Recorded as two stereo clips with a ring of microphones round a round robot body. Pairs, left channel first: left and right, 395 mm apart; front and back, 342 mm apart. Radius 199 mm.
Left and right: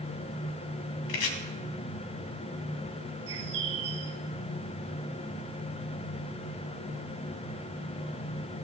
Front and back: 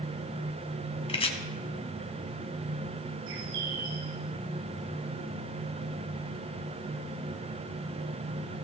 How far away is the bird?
About 1.5 m.